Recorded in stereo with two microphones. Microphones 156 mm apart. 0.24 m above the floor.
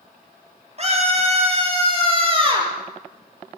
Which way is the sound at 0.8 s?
45° right (ahead or behind).